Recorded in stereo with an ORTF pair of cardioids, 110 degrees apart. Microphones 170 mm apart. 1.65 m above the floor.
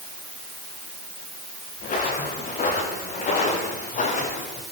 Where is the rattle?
No rattle in this recording.